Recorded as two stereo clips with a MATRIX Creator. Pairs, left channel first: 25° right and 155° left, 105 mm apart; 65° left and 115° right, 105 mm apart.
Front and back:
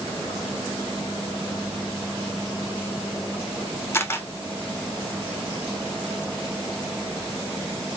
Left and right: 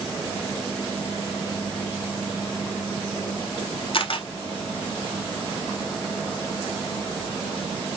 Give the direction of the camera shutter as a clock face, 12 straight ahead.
11 o'clock.